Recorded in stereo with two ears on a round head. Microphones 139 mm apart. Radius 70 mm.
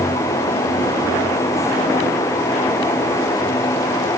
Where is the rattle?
I don't hear a rattle.